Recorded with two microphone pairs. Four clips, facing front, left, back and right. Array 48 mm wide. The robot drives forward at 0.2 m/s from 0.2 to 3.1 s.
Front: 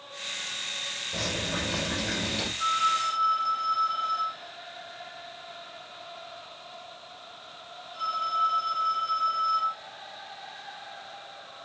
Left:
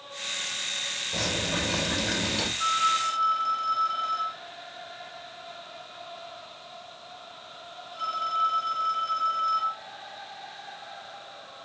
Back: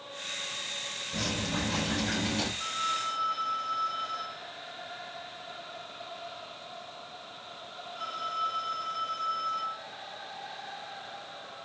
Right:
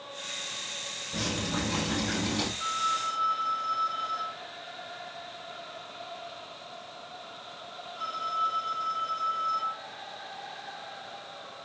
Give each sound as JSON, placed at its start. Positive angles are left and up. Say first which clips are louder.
{"t": 1.1, "sound": "dripping", "louder": "left 2 dB, front 1 dB", "azimuth_deg": 90, "distance_m": 2.5}
{"t": 2.6, "sound": "a phone ringing", "louder": "left 7 dB, front 7 dB", "azimuth_deg": 95, "distance_m": 2.0}